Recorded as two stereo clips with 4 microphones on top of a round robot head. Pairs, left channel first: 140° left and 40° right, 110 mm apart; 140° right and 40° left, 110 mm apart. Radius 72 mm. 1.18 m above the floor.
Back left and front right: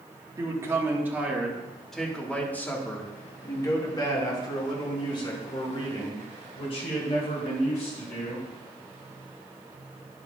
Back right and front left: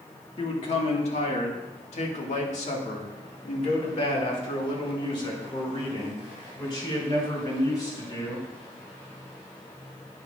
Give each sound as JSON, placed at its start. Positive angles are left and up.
{"t": 0.4, "sound": "a man speaking", "azimuth_deg": -100, "distance_m": 2.0}